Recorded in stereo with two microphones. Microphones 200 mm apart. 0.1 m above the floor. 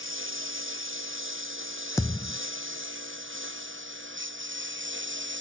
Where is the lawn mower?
90° right; by 5.4 s 70° right (ahead or behind).